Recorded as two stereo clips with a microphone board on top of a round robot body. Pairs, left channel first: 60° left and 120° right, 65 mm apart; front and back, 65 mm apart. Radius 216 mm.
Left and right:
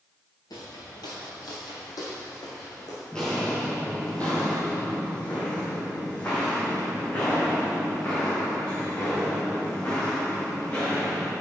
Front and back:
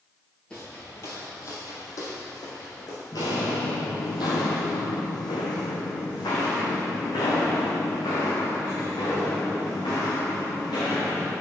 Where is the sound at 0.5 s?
80° left, 0.5 m; by 3.0 s 35° left, 2.5 m.